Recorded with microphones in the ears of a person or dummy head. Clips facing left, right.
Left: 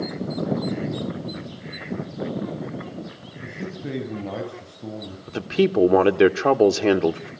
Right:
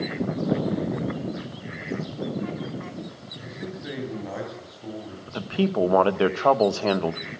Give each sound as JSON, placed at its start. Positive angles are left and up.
{"t": 3.4, "sound": "a man speaking", "side_deg": 35, "distance_m": 9.5}
{"t": 5.3, "sound": "a man speaking", "side_deg": 20, "distance_m": 1.1}